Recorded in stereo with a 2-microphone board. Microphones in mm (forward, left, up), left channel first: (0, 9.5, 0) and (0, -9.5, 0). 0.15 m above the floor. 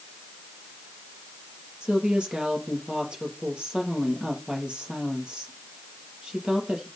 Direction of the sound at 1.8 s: 70° right (ahead or behind).